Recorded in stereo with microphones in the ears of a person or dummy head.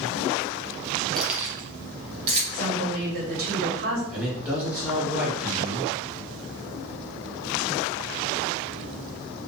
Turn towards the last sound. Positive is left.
turn(degrees=-10)  # may be behind; listen again after turning